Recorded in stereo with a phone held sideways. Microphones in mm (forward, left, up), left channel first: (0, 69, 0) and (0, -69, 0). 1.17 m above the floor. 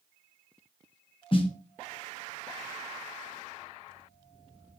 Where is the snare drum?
40° left (ahead or behind), 0.7 m.